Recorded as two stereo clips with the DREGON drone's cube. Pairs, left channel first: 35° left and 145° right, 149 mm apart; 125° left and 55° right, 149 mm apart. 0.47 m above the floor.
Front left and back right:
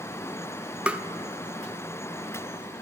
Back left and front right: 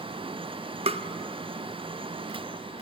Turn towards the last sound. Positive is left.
turn(degrees=-70)